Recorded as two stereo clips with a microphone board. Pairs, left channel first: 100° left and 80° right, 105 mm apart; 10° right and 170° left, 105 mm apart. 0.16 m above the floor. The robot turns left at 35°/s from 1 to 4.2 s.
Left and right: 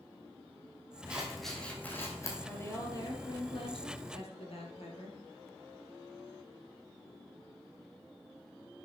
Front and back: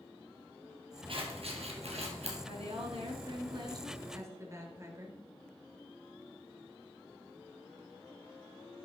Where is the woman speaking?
170° left, 3.5 m; by 5.2 s 110° left, 3.5 m.